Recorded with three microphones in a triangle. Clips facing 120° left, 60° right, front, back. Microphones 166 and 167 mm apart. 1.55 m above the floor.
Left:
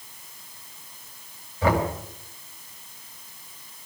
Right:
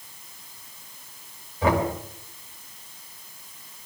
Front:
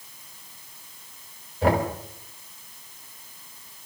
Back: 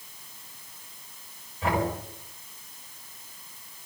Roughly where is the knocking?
Ahead.